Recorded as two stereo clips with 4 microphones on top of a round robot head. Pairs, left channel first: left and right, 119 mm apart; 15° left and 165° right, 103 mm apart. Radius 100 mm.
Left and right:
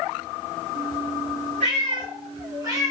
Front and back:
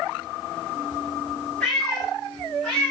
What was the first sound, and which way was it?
A cat meowing, 70° right.